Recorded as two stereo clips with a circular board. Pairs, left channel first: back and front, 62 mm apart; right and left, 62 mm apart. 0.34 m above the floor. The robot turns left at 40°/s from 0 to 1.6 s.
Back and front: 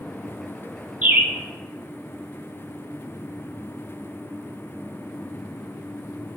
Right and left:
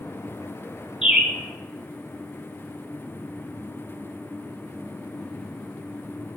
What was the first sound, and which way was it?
A bird, 20° left.